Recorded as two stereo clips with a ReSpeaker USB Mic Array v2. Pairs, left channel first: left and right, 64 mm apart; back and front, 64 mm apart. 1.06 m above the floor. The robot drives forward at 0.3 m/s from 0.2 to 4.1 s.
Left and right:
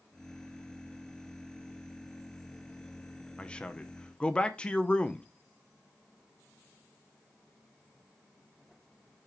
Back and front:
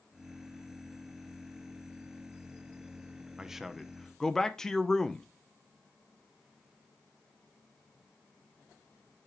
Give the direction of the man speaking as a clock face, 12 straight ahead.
10 o'clock.